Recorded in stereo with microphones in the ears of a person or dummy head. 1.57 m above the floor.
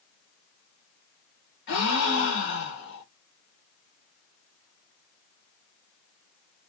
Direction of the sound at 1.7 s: 65° left (ahead or behind).